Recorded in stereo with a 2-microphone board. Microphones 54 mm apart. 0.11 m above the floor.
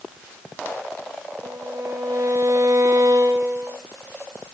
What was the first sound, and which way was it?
A violin, 70° right (ahead or behind).